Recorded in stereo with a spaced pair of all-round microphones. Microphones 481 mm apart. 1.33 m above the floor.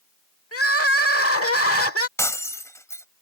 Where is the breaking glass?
5° left (ahead or behind).